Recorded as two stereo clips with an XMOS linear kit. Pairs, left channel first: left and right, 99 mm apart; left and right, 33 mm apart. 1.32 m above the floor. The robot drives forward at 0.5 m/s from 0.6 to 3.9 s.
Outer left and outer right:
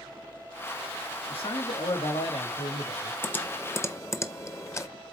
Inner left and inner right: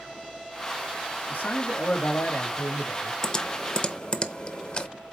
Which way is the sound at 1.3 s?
85° left.